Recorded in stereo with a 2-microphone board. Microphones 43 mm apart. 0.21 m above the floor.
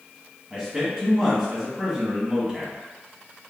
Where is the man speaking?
15° right (ahead or behind), 1.6 m.